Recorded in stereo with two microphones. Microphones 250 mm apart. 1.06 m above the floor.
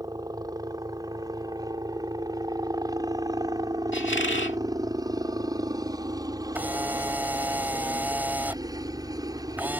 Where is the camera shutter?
5° right (ahead or behind).